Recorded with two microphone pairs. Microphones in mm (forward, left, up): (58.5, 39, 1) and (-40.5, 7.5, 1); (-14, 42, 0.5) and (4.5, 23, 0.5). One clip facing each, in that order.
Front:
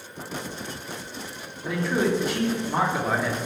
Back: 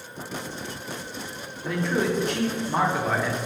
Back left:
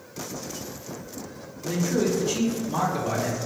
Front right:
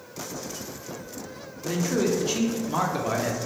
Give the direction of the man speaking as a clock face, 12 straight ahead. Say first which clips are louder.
Front 1 dB, even; 2 o'clock.